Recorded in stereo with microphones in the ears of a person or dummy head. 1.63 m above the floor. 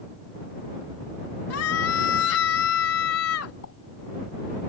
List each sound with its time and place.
1.5 s a scream: 85° left
3.6 s a pop: 80° left